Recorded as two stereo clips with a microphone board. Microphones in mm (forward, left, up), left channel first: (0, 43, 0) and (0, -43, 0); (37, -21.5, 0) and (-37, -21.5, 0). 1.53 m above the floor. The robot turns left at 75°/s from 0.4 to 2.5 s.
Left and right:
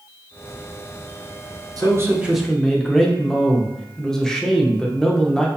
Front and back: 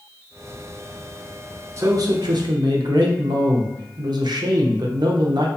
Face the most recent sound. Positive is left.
turn(degrees=175)